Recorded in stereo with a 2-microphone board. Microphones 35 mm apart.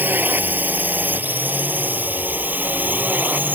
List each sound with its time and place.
0.0 s a drone: 60° right (ahead or behind); by 3.6 s 55° right (ahead or behind)